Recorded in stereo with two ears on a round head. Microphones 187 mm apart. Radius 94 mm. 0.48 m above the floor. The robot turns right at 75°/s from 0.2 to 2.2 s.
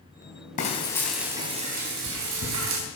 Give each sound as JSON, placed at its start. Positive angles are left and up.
{"t": 0.6, "sound": "frying", "azimuth_deg": 140, "distance_m": 3.5}